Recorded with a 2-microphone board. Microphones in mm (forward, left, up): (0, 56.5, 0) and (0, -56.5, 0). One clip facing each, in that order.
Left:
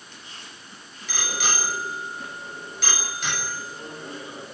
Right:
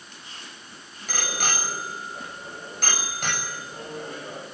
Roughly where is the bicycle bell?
Right.